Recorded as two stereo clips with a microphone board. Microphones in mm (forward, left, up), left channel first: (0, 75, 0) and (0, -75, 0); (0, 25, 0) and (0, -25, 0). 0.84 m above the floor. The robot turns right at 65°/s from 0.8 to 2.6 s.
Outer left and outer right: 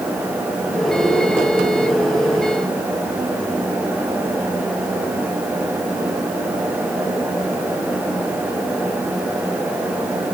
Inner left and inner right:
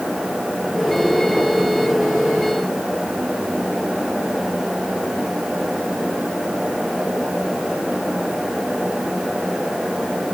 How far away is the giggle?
No giggle in this recording.